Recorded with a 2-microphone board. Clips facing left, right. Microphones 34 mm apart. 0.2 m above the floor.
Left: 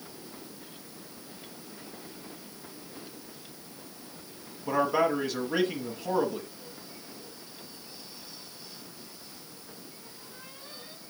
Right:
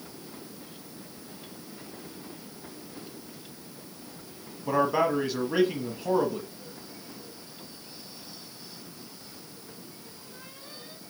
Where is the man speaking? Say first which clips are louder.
Right 1 dB; 5° right (ahead or behind), 1.2 m.